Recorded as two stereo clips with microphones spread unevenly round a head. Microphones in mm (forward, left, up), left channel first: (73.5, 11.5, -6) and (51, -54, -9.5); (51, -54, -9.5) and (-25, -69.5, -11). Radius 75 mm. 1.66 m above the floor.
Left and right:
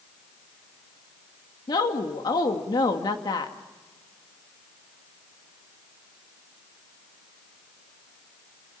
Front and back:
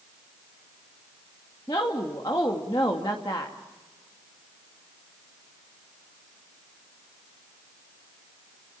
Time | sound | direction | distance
1.7 | a woman speaking | 70° left | 2.5 m